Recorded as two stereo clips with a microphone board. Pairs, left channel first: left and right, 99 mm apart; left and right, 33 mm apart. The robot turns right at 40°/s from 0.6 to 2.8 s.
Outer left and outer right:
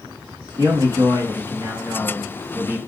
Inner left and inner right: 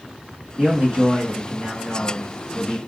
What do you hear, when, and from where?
0.6 s a man speaking: 110° right, 1.5 m; by 2.8 s 25° right, 1.5 m